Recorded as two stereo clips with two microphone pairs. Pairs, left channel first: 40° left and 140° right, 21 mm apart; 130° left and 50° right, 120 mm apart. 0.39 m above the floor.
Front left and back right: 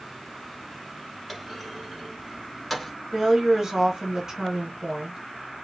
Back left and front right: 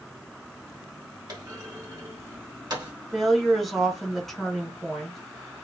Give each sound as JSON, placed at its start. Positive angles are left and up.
{"t": 1.3, "sound": "a clunk", "azimuth_deg": -55, "distance_m": 1.4}
{"t": 3.1, "sound": "a woman speaking", "azimuth_deg": -145, "distance_m": 1.0}